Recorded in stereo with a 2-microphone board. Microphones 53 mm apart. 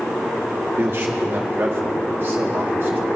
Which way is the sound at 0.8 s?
50° right (ahead or behind).